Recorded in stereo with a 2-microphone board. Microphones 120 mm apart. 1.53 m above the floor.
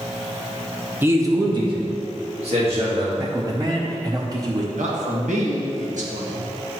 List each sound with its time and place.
1.0 s a man speaking: 15° right (ahead or behind), 1.1 m; by 3.1 s 60° right (ahead or behind), 3.5 m
3.2 s a man speaking: 30° right (ahead or behind), 0.8 m
4.7 s a man speaking: 85° right, 1.6 m